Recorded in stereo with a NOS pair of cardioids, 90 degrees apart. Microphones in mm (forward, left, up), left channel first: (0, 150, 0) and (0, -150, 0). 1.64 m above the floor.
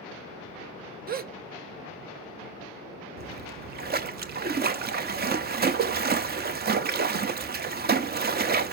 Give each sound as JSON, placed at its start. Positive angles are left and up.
{"t": 1.1, "sound": "a gasp", "azimuth_deg": -30, "distance_m": 0.5}
{"t": 3.2, "sound": "a splash", "azimuth_deg": -30, "distance_m": 0.6}